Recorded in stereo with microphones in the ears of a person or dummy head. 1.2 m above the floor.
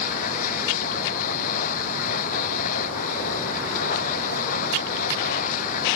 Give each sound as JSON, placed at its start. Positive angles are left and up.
{"t": 0.0, "sound": "a machine running", "side_deg": 50}